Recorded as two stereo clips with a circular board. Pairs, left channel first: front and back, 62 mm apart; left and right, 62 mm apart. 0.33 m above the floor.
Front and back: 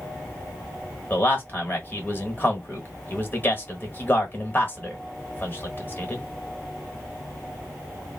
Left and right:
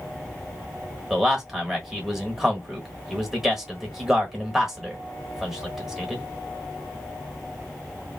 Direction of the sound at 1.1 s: 15° right.